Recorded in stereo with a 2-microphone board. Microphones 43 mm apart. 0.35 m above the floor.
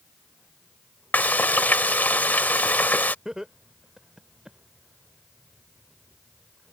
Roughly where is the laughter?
Centre.